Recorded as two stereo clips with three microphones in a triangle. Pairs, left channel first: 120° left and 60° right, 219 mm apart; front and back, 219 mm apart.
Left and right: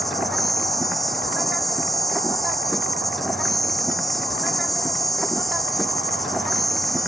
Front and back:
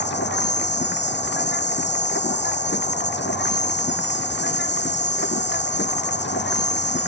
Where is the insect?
30° left.